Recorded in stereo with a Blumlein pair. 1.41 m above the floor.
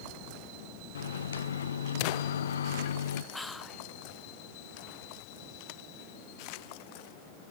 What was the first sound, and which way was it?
A microwave, 65° left.